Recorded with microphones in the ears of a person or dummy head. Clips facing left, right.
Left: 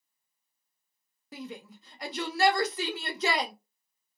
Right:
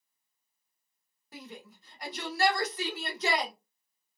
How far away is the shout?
About 0.8 m.